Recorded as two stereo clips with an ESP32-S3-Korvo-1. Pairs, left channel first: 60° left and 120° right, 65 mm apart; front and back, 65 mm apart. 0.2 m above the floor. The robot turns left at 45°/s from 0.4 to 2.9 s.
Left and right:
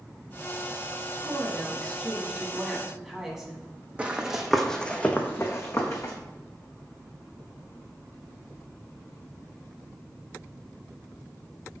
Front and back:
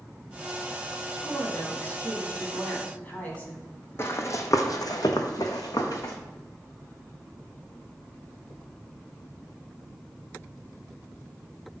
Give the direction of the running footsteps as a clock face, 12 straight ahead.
2 o'clock.